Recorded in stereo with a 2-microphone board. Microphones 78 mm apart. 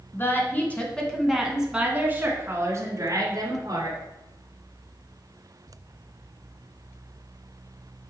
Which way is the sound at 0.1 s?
30° left (ahead or behind).